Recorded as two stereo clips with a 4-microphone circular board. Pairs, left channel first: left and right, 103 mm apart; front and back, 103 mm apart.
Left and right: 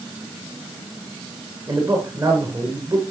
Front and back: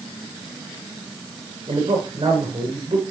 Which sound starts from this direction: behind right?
A man speaking, at 1.7 s.